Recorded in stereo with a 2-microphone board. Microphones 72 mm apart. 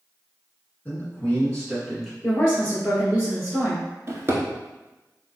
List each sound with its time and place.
0.8 s a man speaking: 25° left (ahead or behind), 1.6 m; by 2.1 s 5° right (ahead or behind), 1.6 m
2.2 s a woman speaking: 20° left (ahead or behind), 1.5 m
4.1 s a drawer: 35° right (ahead or behind), 0.7 m